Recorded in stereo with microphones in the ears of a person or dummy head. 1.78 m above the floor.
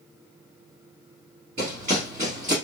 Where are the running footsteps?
20° right (ahead or behind), 2 m.